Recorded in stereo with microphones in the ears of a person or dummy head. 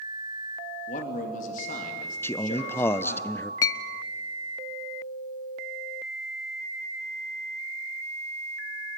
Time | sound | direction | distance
0.9 | a man speaking | 50° left (ahead or behind) | 2.5 m
2.2 | a man speaking | 20° left (ahead or behind) | 0.6 m
3.6 | a clink | 20° left (ahead or behind) | 0.6 m